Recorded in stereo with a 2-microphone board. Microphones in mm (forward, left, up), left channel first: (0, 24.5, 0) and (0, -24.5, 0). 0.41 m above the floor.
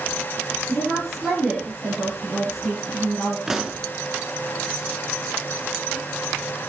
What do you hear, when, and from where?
0.7 s a woman speaking: 5° right (ahead or behind), 9.5 m
3.5 s a pop: 10° right (ahead or behind), 1.2 m